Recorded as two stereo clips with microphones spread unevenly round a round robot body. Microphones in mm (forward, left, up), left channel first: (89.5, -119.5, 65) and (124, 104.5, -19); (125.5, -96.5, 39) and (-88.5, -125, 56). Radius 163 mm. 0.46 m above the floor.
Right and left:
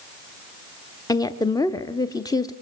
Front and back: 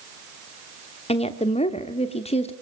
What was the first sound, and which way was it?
A woman speaking, straight ahead.